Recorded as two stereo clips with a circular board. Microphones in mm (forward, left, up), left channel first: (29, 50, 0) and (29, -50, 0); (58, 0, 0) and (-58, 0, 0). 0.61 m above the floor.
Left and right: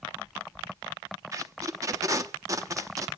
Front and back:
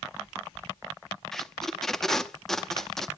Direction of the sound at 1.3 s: 85° right.